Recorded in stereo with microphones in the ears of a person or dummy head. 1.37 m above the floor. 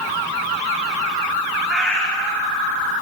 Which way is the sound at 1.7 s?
10° right (ahead or behind).